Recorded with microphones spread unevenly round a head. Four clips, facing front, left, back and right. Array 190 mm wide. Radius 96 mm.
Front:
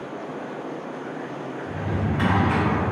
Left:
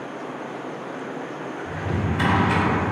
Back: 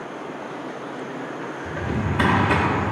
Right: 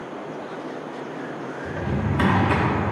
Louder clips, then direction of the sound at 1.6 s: Right 1 dB, back 1 dB; 130° right.